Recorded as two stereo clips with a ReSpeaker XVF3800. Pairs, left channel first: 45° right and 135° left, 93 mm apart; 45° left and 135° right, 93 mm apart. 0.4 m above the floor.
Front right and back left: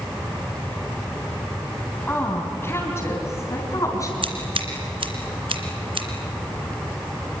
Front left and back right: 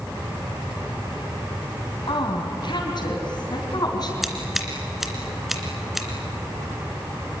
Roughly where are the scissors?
Behind left.